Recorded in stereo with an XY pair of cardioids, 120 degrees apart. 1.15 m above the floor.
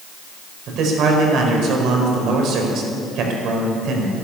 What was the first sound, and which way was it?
A man speaking, 65° right.